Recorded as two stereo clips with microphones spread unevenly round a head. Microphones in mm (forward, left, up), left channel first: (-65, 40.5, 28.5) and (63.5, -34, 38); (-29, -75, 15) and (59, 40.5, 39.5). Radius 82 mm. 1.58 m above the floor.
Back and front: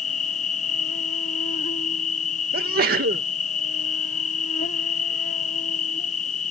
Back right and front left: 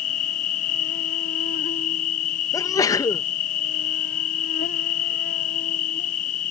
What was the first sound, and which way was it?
An insect, 165° right.